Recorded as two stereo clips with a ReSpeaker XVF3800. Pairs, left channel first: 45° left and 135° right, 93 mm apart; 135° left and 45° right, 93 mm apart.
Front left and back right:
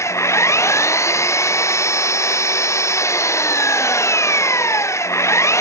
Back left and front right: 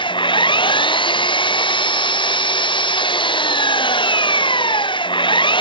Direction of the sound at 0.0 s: 105° left.